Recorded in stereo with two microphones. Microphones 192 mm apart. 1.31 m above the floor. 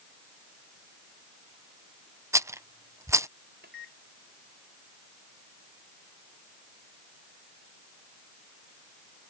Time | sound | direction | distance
2.3 | a rattle | 15° right (ahead or behind) | ?
3.6 | a microwave | 65° right (ahead or behind) | ?